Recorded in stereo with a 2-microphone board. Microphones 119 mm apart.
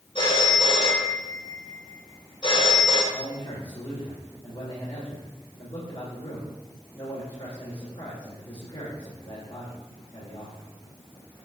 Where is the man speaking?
50° left (ahead or behind), 3 m.